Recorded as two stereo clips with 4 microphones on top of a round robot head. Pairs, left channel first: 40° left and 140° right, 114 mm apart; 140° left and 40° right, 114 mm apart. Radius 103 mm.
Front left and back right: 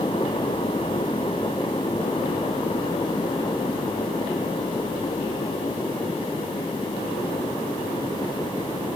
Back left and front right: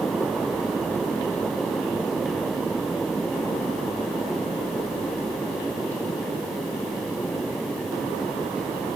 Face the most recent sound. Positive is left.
No sound to turn to.